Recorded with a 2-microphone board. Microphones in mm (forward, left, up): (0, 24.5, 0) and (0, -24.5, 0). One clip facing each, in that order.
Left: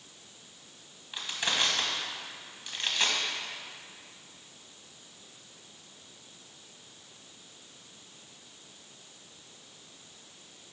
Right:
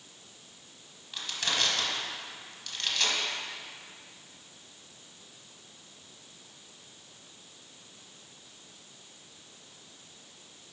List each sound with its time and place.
1.1 s crushing: 20° left (ahead or behind), 1.1 m